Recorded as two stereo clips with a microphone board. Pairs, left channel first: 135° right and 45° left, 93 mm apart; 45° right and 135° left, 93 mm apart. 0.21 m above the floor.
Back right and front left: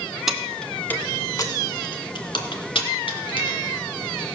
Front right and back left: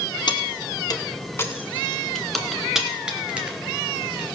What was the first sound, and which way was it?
Keys jangling, 40° right.